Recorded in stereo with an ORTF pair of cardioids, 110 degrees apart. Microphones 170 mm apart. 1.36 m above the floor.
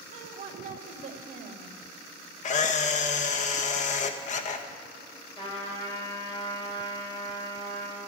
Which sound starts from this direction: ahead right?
A woman speaking, at 0.1 s.